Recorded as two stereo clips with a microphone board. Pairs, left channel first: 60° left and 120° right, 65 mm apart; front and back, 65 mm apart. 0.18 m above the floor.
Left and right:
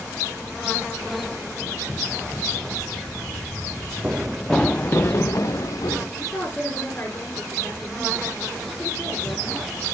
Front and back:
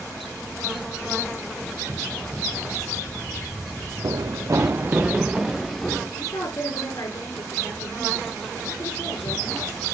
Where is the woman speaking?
5° right, 3 m.